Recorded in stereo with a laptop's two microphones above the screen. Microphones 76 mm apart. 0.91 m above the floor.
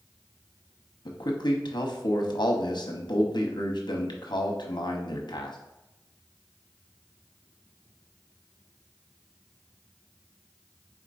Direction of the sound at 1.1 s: 75° left (ahead or behind).